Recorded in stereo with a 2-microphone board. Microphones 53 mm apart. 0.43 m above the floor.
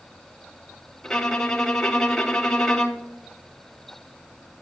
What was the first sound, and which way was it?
A violin, 10° left (ahead or behind).